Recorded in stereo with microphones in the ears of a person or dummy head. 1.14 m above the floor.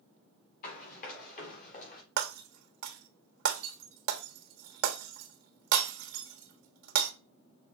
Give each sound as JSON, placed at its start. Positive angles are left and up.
{"t": 0.6, "sound": "running footsteps", "side_deg": 50, "distance_m": 4.5}
{"t": 2.2, "sound": "breaking glass", "side_deg": -65, "distance_m": 1.2}